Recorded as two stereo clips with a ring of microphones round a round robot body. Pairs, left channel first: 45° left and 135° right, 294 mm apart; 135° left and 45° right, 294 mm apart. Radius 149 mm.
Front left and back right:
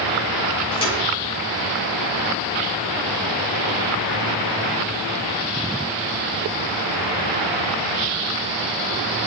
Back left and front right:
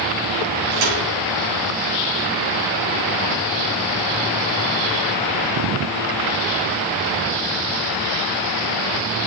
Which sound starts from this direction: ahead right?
A thud, at 0.7 s.